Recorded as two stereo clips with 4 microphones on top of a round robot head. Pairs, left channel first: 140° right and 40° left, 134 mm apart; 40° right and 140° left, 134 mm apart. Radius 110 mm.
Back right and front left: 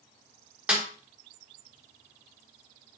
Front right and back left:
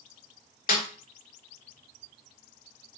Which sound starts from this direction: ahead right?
A snare drum, at 0.7 s.